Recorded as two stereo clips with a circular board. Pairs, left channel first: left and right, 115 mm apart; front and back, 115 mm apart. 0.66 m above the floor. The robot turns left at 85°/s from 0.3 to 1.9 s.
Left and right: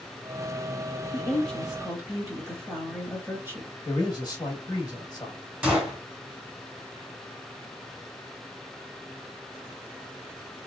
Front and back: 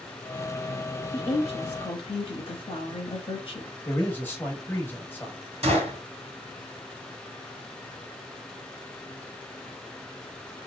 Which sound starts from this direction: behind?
A gunshot, at 5.6 s.